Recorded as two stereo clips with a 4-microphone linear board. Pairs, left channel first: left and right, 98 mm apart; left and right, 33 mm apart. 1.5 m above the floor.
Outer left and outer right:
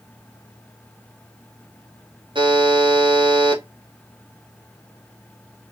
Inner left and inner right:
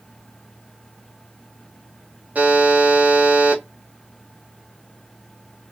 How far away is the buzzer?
About 1.1 m.